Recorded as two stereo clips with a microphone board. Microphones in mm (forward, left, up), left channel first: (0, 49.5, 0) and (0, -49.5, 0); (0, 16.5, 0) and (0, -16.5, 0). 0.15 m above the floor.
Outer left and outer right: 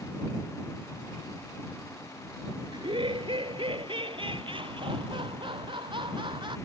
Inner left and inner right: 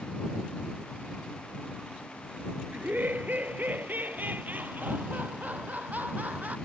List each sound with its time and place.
2.7 s laughter: 55° right (ahead or behind); by 6.5 s 50° right (ahead or behind)